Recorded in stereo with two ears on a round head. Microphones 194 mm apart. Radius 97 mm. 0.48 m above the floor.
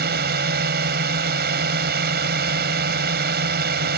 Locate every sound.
0.0 s a drone: 45° right (ahead or behind)